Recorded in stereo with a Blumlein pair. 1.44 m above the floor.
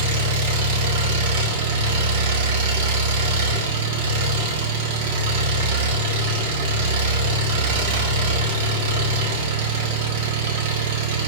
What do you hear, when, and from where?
0.0 s an engine running: 50° right, 2 m